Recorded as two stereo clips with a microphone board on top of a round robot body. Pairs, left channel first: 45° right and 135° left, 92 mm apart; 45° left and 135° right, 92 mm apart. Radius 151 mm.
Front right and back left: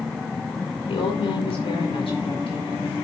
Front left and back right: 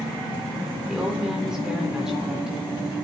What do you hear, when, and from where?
0.9 s a woman speaking: 50° right, 4 m